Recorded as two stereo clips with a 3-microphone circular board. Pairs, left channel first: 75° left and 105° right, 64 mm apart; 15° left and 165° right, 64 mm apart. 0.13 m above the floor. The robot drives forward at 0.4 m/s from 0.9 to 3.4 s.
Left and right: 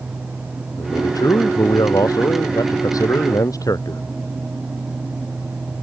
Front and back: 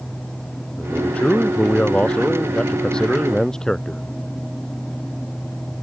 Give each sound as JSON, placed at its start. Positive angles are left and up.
{"t": 0.8, "sound": "a man speaking", "azimuth_deg": 85}